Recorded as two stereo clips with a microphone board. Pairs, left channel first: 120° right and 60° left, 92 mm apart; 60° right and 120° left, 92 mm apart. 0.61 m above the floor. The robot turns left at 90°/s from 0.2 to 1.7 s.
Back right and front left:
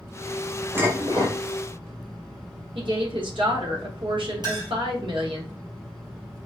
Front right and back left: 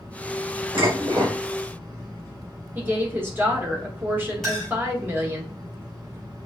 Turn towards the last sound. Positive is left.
turn(degrees=30)